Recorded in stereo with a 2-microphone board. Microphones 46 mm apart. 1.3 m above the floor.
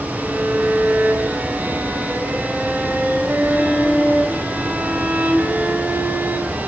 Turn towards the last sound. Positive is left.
turn(degrees=-35)  # may be behind; listen again after turning